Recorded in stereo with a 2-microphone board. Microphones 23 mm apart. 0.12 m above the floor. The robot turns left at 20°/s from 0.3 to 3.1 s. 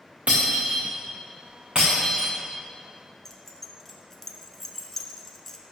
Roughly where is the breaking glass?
Right.